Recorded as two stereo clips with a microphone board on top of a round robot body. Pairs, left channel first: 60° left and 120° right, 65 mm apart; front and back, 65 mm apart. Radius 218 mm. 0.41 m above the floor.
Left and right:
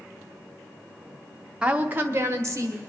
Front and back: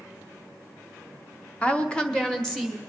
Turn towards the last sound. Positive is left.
turn(degrees=-85)